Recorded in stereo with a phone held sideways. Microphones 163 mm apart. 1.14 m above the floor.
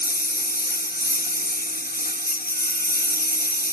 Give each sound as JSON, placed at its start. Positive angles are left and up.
{"t": 0.0, "sound": "a lawn mower", "side_deg": 70}